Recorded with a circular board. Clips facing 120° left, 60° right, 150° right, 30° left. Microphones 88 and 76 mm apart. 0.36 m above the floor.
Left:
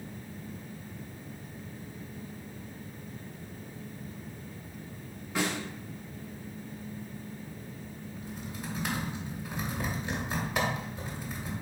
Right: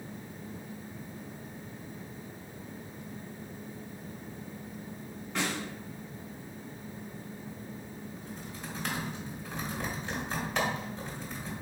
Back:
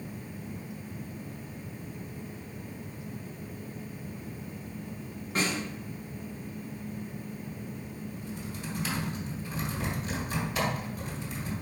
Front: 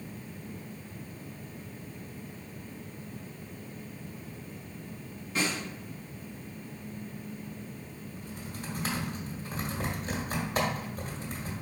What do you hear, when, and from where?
5.3 s a snare drum: 165° right, 1.7 m
8.2 s typing on a keyboard: 40° left, 1.2 m